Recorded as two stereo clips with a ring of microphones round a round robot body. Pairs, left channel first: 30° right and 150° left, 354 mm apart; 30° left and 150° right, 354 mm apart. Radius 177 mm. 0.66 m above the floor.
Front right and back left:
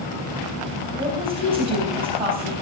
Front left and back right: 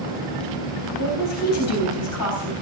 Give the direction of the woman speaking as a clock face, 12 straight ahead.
9 o'clock.